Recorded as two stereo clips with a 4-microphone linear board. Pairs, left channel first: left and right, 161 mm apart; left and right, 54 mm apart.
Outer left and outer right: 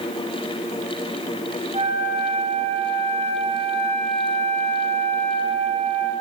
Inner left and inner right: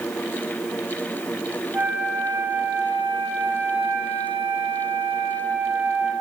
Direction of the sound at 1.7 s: 40° right (ahead or behind).